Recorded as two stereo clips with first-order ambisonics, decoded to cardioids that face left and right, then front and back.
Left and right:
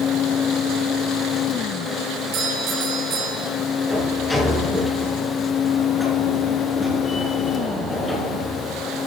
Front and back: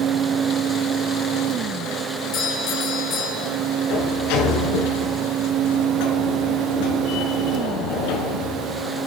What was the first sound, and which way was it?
A doorbell, 45° right.